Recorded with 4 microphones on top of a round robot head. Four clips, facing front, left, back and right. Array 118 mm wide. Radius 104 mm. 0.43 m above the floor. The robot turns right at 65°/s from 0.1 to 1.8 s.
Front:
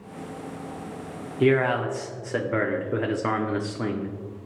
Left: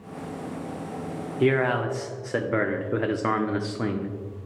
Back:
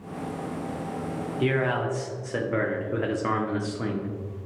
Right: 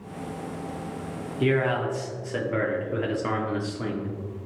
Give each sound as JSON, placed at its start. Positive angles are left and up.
{"t": 1.4, "sound": "a man speaking", "azimuth_deg": 30, "distance_m": 0.8}